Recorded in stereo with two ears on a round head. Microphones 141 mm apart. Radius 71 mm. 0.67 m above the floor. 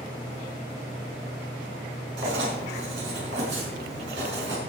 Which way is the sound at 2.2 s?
75° right (ahead or behind).